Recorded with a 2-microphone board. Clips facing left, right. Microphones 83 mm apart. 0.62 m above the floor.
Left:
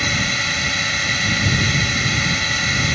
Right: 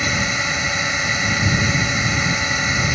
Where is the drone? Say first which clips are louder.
Right 1 dB; 15° right (ahead or behind).